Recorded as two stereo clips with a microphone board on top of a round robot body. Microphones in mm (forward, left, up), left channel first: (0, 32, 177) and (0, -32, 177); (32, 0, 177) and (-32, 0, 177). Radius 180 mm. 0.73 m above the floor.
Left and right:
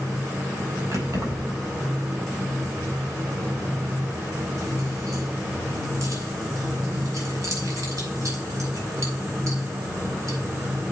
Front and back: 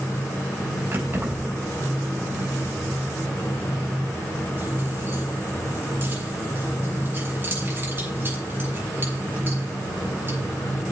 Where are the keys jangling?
125° right, 5.5 m.